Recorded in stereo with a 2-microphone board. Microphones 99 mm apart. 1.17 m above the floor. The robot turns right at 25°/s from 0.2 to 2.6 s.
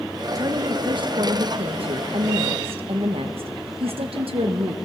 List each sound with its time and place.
0.3 s a woman speaking: 140° right, 1.4 m; by 4.8 s 85° right, 1.4 m